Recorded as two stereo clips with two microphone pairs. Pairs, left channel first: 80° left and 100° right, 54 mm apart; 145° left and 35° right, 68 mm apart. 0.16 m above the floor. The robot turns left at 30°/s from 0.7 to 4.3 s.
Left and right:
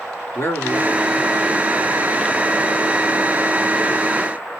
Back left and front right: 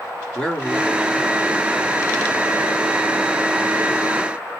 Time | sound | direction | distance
0.3 | a man speaking | 70° left | 2.5 m